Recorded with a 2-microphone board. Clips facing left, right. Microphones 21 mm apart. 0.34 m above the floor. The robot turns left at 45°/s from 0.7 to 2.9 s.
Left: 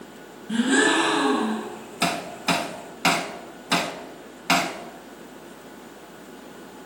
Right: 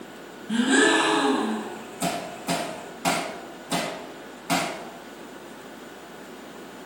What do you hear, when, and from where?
0.5 s a gasp: 170° right, 2.5 m; by 1.7 s 145° left, 2.5 m
2.0 s hammering: 80° left, 0.9 m; by 4.7 s 55° left (ahead or behind), 0.9 m